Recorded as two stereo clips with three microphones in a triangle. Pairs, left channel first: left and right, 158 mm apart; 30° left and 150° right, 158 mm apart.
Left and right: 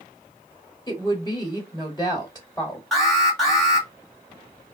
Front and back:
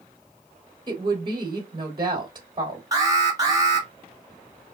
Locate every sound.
0.9 s a woman speaking: 155° left, 1.0 m
2.9 s an alarm: 175° left, 1.4 m